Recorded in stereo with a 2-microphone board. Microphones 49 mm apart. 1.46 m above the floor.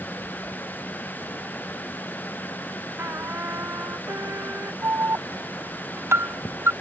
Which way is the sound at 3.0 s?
60° right (ahead or behind).